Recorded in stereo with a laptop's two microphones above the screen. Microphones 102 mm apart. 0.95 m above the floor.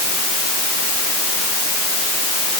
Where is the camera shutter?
No camera shutter in this recording.